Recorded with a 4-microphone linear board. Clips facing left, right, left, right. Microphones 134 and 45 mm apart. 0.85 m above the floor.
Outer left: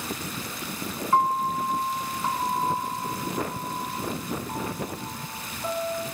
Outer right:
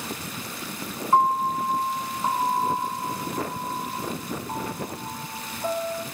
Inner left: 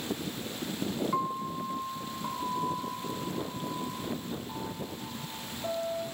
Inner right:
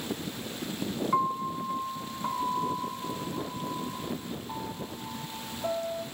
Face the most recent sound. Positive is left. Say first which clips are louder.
# outer right 2 dB, inner right 4 dB
turn(degrees=-25)  # may be behind; listen again after turning